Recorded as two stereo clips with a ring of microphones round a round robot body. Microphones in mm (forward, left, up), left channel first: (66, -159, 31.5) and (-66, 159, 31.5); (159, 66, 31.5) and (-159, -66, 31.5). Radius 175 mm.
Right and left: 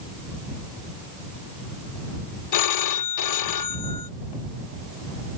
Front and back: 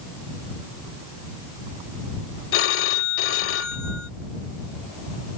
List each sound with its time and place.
2.5 s a phone ringing: 30° right